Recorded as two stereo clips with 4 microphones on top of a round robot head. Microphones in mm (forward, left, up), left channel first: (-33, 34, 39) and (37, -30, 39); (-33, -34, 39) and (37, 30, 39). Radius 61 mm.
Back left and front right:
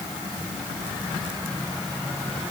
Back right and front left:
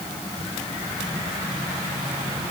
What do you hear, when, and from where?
Only background noise.